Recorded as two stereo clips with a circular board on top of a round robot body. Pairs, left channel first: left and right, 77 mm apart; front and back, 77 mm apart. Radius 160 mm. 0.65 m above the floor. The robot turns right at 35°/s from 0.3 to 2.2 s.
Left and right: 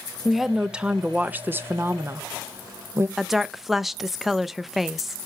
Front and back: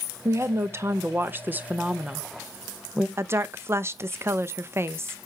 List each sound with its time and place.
0.2 s a woman speaking: 175° right, 0.9 m; by 3.1 s 110° right, 0.9 m
3.2 s a woman speaking: 175° right, 0.6 m